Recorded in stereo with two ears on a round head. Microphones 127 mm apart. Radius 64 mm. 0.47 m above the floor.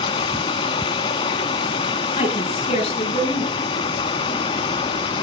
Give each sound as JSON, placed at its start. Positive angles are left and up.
{"t": 0.0, "sound": "running water", "side_deg": 40, "distance_m": 0.8}
{"t": 2.2, "sound": "a woman speaking", "side_deg": 40, "distance_m": 5.0}